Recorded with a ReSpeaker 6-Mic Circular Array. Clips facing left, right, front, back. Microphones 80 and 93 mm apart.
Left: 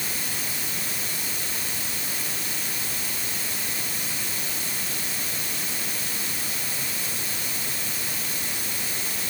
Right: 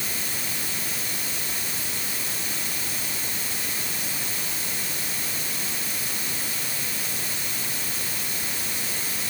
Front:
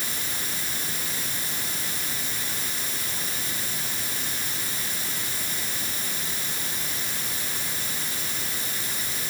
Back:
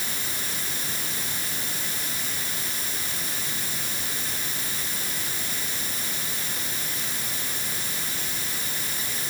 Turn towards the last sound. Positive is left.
No sound to turn to.